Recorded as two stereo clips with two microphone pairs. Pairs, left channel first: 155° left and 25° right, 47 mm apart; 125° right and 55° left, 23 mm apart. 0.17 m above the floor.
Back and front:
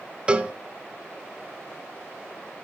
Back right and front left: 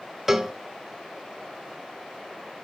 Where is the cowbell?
10° left, 1.3 m.